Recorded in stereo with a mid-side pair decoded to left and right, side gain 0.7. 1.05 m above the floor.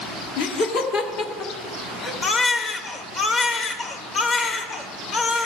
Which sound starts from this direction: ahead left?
A baby crying, at 2.2 s.